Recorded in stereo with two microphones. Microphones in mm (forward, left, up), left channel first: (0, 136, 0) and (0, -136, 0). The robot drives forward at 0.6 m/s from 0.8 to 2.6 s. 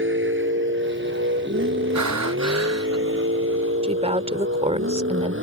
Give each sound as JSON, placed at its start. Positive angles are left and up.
{"t": 0.0, "sound": "a vehicle", "side_deg": -45}
{"t": 1.9, "sound": "breathing", "side_deg": -85}
{"t": 3.8, "sound": "a woman speaking", "side_deg": -20}